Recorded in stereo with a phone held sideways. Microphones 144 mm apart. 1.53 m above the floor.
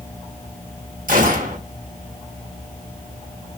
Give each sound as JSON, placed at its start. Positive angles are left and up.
{"t": 1.1, "sound": "a gunshot", "side_deg": -75, "distance_m": 1.1}